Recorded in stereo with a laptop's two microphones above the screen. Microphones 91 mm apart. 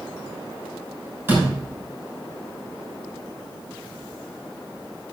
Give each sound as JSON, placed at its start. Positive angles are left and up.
{"t": 1.3, "sound": "a door slam", "side_deg": -20, "distance_m": 6.5}